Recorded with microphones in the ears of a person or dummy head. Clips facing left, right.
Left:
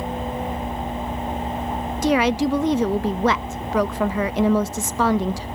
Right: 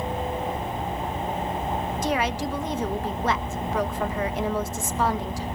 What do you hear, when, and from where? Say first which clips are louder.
2.0 s a woman speaking: left 10 dB; 55° left (ahead or behind), 0.8 m